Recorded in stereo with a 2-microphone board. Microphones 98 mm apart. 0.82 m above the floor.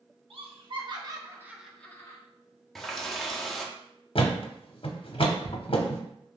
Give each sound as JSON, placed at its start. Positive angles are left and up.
{"t": 0.3, "sound": "laughter", "side_deg": -60, "distance_m": 1.4}
{"t": 2.8, "sound": "a running tap", "side_deg": 0, "distance_m": 0.9}
{"t": 4.2, "sound": "a thud", "side_deg": 60, "distance_m": 0.7}